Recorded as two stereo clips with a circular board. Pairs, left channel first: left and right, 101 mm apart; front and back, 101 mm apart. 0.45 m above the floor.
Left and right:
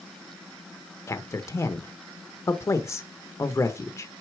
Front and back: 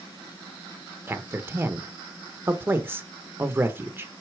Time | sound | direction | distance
1.1 | a man speaking | 130° left | 0.9 m